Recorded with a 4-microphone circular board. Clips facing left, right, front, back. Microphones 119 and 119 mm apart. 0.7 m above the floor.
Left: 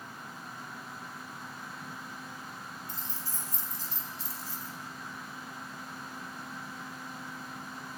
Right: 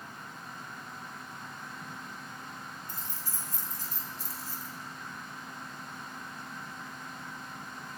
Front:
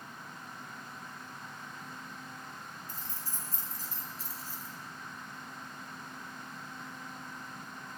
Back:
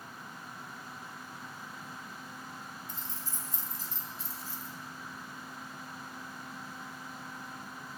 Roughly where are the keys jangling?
Ahead right.